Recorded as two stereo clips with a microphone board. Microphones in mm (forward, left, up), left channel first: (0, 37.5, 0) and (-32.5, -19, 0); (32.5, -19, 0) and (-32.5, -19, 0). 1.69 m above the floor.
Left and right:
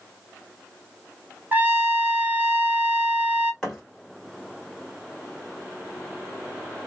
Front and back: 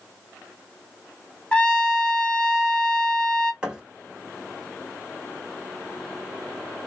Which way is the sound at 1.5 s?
70° right.